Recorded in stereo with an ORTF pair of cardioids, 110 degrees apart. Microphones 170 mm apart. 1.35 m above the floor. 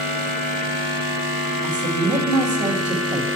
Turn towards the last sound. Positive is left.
turn(degrees=-45)